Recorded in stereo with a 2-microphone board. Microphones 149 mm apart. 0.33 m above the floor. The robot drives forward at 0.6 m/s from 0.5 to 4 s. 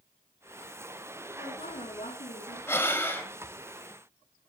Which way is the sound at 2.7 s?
15° left (ahead or behind).